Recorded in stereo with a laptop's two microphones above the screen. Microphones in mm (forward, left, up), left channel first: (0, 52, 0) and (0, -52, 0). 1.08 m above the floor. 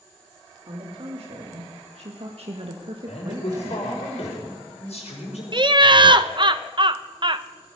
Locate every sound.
0.7 s a woman speaking: 65° right (ahead or behind), 3 m; by 4.1 s 15° right (ahead or behind), 1.6 m
3.1 s a man speaking: 75° left (ahead or behind), 5.5 m
5.5 s laughter: 45° right (ahead or behind), 0.6 m